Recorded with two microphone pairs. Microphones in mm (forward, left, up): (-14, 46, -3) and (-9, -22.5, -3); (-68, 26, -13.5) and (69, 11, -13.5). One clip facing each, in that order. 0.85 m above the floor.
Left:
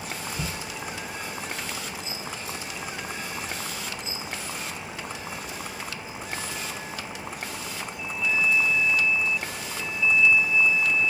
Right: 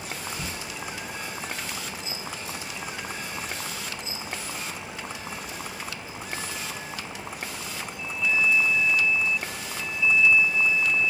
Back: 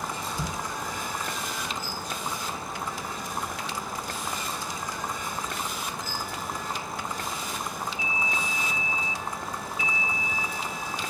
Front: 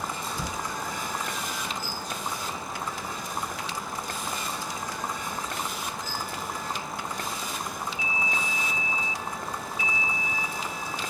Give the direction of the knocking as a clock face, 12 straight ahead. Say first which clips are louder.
Left 2 dB, even; 9 o'clock.